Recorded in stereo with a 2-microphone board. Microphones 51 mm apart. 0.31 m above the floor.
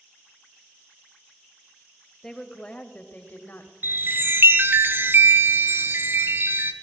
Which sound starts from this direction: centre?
A woman speaking, at 2.2 s.